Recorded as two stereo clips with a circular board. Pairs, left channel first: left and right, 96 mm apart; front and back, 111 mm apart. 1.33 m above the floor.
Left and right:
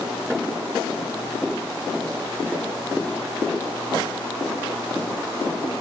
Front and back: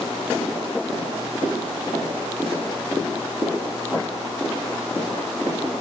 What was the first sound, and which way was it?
Only background noise.